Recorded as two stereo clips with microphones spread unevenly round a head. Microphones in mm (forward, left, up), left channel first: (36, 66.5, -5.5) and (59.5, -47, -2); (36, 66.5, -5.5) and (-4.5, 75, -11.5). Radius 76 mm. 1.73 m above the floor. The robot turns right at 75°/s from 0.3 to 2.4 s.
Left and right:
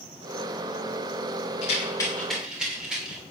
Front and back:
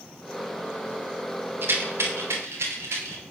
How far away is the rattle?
About 2.5 m.